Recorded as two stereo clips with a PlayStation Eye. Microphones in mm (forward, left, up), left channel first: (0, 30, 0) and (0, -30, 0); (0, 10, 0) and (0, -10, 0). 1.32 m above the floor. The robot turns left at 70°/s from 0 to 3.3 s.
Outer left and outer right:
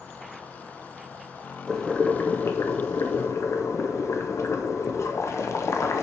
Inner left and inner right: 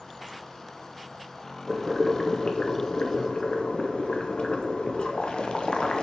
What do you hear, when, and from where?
1.7 s boiling: straight behind, 0.9 m; by 6.0 s 65° left, 0.9 m